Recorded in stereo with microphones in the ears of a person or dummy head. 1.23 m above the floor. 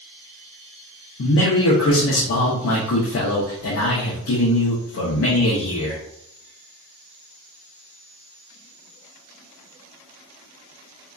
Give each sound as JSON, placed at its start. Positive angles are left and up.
{"t": 1.2, "sound": "a man speaking", "side_deg": 75, "distance_m": 0.6}